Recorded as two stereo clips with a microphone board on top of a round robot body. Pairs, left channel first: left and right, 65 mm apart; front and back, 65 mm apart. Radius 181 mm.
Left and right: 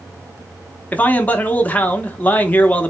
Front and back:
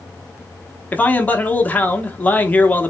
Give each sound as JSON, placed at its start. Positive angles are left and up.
{"t": 0.9, "sound": "a man speaking", "azimuth_deg": 45, "distance_m": 1.0}